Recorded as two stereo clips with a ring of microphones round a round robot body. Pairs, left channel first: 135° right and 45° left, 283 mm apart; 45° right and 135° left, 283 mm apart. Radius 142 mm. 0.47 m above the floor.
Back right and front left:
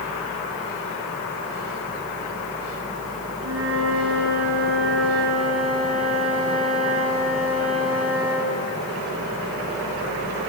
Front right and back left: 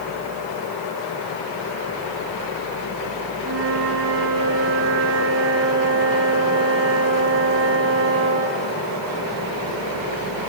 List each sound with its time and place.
3.4 s a flute: 90° left, 6 m